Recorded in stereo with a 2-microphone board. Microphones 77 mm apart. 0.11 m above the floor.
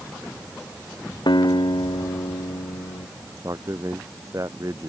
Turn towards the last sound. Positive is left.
turn(degrees=-45)  # may be behind; listen again after turning